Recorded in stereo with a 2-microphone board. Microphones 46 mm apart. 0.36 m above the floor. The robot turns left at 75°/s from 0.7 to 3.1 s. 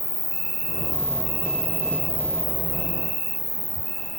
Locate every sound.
0.0 s an insect: 105° right, 0.9 m; by 4.2 s 75° left, 0.9 m